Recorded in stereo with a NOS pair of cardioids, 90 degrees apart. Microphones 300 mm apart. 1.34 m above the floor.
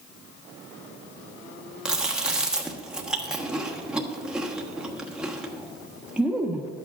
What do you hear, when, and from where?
1.9 s chewing: 5° right, 1.2 m